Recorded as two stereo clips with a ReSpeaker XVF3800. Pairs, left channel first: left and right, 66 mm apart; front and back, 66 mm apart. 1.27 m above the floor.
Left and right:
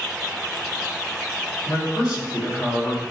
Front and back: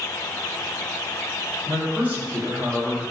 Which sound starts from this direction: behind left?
A man speaking, at 1.7 s.